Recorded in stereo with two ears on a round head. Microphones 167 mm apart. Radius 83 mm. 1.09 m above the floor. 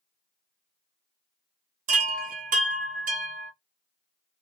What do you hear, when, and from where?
1.9 s a chime: 45° right (ahead or behind), 0.8 m